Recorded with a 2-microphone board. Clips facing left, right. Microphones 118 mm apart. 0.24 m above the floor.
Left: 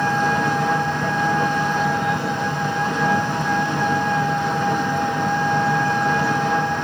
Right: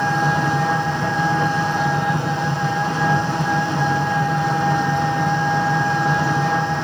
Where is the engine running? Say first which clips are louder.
Even; 10° right (ahead or behind), 7 m.